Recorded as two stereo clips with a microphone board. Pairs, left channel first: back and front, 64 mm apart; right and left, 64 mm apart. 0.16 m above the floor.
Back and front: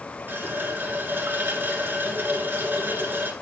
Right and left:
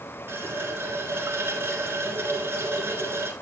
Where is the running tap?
45° left, 1.3 m.